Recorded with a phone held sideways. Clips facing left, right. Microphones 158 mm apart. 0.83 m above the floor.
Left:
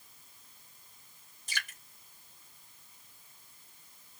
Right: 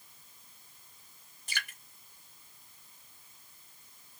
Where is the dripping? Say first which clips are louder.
Even; 65° right (ahead or behind), 1.5 m.